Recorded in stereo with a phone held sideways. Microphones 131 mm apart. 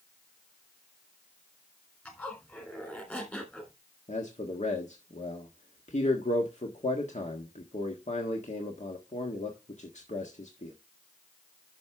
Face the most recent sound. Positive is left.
turn(degrees=65)  # may be behind; listen again after turning